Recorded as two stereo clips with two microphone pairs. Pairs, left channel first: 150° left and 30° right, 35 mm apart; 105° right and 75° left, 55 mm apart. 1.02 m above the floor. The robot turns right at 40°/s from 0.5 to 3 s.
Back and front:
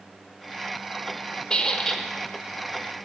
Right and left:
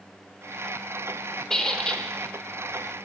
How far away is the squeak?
About 0.7 m.